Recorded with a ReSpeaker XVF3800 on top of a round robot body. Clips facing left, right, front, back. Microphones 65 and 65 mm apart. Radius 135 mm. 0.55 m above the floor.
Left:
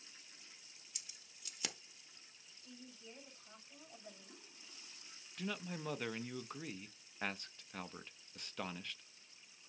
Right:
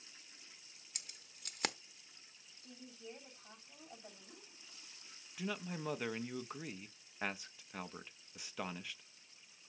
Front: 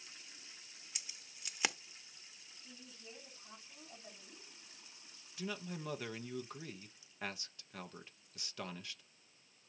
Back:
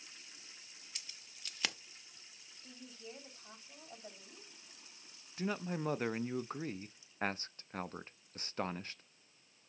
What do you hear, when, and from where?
0.9 s keys jangling: 70° right, 0.8 m
2.6 s a woman speaking: 140° right, 5 m
5.4 s a man speaking: 170° right, 0.7 m